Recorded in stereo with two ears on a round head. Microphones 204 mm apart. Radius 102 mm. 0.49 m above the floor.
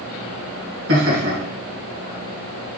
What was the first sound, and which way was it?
Laughter, 50° right (ahead or behind).